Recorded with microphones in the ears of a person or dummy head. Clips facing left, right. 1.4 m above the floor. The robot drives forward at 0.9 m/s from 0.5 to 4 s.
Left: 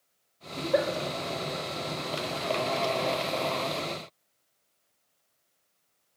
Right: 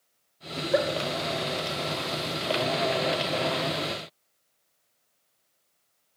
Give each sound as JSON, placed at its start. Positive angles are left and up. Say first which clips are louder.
{"t": 0.6, "sound": "a giggle", "louder": "right 1 dB", "side_deg": 0, "distance_m": 1.9}